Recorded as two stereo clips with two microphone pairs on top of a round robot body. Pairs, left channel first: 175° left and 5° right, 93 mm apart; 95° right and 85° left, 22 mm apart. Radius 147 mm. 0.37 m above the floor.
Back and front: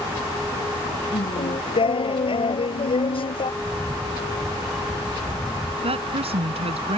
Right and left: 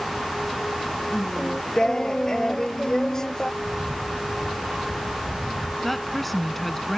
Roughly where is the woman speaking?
Ahead.